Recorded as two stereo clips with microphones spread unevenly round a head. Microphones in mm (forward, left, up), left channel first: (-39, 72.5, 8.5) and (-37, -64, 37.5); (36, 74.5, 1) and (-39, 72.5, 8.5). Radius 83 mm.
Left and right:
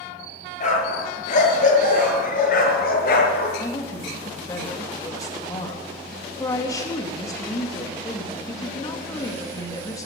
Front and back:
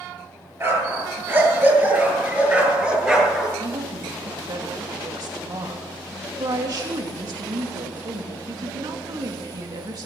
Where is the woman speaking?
160° left, 2.5 m.